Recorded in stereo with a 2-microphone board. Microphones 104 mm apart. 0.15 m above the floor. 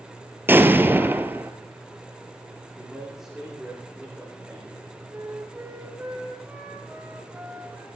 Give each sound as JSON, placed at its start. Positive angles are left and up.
{"t": 0.5, "sound": "an explosion", "side_deg": -20, "distance_m": 1.1}
{"t": 2.8, "sound": "a man speaking", "side_deg": -5, "distance_m": 9.5}
{"t": 5.1, "sound": "a flute", "side_deg": -20, "distance_m": 3.5}